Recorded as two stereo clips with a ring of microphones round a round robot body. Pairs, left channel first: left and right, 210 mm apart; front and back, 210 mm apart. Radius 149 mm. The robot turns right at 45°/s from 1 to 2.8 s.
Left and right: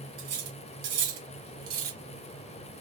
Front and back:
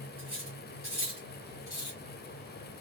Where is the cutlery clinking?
110° right, 1.6 m; by 2.0 s 65° right, 1.6 m.